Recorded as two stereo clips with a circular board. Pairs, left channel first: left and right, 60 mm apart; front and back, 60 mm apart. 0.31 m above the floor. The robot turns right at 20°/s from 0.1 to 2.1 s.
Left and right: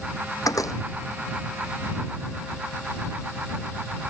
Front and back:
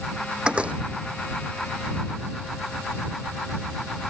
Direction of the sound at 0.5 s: 105° left.